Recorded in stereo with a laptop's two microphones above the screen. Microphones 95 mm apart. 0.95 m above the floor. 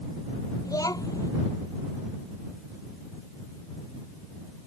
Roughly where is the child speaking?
Left.